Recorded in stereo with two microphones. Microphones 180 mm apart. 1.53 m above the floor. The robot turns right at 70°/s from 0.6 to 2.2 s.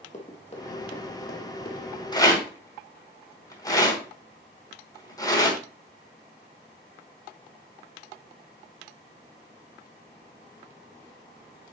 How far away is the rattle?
About 2.0 m.